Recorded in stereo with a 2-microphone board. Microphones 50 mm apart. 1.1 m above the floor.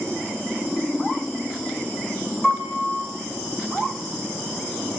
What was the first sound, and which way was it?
A piano, 10° left (ahead or behind).